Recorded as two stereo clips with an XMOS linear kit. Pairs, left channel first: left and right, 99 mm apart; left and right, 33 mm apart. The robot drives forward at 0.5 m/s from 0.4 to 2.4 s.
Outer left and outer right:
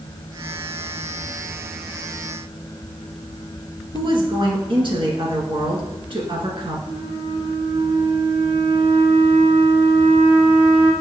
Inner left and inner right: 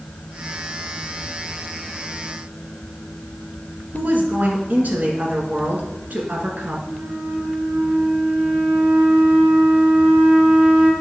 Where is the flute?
60° right (ahead or behind), 1.6 m.